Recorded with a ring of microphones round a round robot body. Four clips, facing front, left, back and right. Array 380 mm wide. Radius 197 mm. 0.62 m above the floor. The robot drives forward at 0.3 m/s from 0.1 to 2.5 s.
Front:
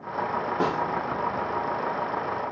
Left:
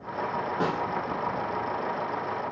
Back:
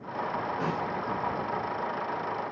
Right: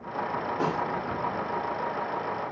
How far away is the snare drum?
About 1.5 m.